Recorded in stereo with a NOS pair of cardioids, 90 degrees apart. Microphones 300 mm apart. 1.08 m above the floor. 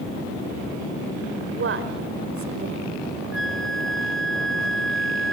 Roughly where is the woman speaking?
Ahead right.